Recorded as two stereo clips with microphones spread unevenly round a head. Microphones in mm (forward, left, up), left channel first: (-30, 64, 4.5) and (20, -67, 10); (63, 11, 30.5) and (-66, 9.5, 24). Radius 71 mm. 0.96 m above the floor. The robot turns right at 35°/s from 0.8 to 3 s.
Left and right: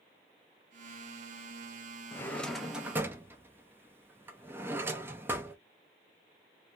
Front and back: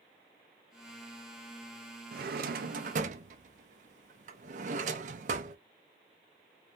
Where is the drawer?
175° right, 0.5 m; by 5.6 s 145° right, 0.5 m.